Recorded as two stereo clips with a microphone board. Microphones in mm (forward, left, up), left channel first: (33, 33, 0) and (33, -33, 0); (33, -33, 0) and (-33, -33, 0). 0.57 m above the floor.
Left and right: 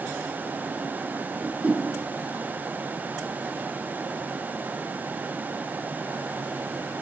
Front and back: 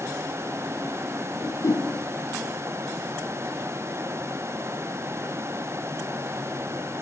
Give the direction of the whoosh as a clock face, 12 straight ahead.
1 o'clock.